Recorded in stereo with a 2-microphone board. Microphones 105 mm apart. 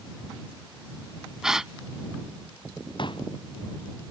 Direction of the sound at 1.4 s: 5° right (ahead or behind).